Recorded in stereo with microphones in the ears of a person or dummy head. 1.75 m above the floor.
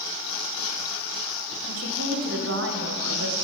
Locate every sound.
1.7 s a woman speaking: 65° right (ahead or behind), 1.7 m